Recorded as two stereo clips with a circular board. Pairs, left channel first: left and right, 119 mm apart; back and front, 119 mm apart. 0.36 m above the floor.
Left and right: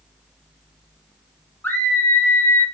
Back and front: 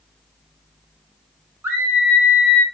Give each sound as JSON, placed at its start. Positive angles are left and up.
{"t": 1.6, "sound": "a scream", "azimuth_deg": 35, "distance_m": 0.9}